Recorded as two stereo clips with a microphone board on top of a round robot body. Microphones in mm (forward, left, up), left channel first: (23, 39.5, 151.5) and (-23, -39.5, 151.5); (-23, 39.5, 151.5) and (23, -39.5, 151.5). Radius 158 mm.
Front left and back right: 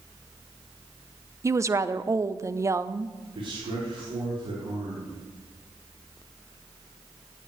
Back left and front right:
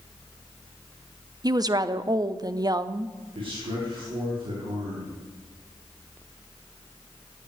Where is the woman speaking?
75° right, 1.0 m.